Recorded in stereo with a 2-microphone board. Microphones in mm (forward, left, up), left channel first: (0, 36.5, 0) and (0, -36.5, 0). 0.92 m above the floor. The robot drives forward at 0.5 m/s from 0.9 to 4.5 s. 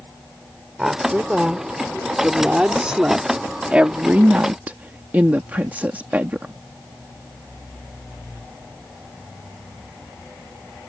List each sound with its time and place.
0.8 s a woman speaking: 10° right (ahead or behind); by 6.5 s 25° right (ahead or behind)